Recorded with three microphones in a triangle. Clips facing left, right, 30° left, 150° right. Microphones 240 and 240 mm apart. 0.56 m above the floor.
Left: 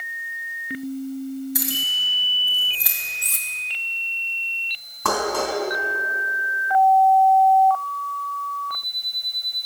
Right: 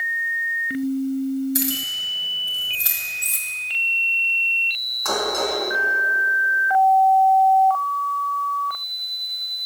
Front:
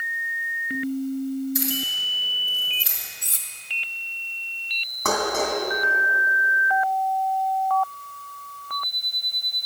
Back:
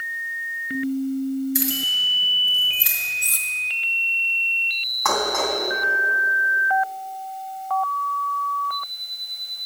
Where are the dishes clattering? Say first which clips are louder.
Even, even; 75° left, 2.5 m.